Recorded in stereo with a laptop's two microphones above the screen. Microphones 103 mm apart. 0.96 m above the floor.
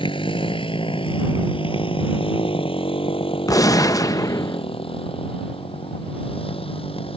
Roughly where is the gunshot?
Left.